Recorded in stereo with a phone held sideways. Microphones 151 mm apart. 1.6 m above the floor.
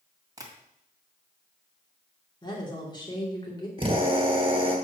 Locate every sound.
0.4 s tapping: 25° right (ahead or behind), 2.0 m
2.4 s a woman speaking: 30° left (ahead or behind), 2.5 m
3.8 s a drill: 40° right (ahead or behind), 2 m